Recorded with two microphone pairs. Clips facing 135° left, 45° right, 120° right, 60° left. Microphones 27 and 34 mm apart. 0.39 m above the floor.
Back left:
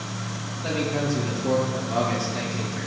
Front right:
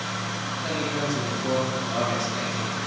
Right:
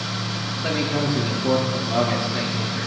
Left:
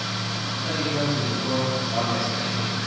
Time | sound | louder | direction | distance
0.6 | a man speaking | back left 3 dB, right 3 dB | 135° right | 6 m